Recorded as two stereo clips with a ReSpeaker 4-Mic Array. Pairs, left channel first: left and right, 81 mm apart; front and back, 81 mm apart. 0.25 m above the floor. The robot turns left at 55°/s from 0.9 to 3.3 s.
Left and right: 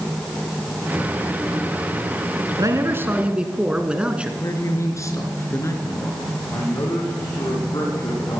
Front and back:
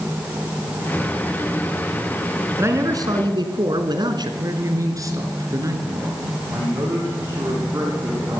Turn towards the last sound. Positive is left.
turn(degrees=125)